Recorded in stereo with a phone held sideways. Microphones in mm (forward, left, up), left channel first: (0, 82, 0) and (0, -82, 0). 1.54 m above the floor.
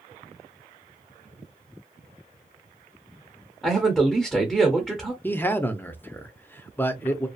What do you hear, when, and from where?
3.6 s a man speaking: 5° right (ahead or behind), 0.9 m
5.2 s a man speaking: 10° left (ahead or behind), 0.6 m